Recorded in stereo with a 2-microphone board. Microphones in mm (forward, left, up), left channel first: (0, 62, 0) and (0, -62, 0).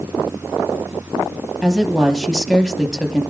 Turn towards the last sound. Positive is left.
turn(degrees=0)  # may be behind; listen again after turning